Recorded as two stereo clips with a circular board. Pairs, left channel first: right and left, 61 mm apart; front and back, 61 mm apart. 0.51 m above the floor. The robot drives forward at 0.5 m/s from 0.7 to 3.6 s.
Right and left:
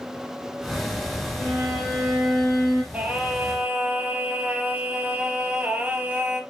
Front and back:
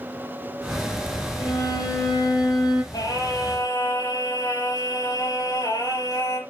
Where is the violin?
5° right, 6 m.